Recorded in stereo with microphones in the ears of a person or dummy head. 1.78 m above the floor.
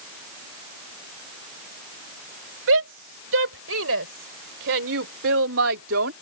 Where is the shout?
85° right; by 6.1 s 80° right.